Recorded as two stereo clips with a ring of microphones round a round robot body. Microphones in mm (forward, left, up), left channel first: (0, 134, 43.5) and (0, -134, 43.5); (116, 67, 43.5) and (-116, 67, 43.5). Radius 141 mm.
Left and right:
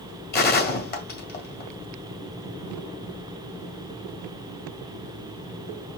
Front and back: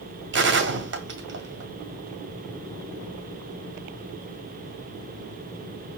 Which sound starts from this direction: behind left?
A gunshot, at 0.3 s.